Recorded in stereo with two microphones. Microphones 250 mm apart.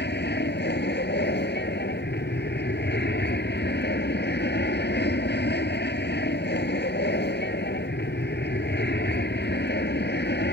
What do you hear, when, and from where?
0.0 s an aircraft: 40° left (ahead or behind)